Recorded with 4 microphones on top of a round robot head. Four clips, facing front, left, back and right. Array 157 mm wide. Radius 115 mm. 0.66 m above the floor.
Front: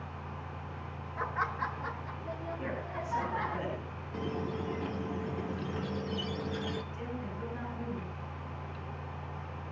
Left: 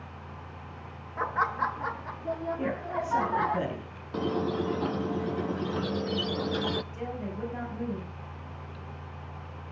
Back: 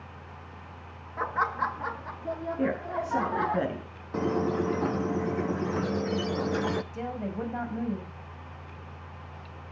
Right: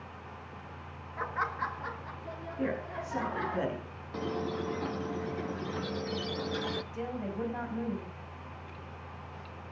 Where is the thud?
I don't hear a thud.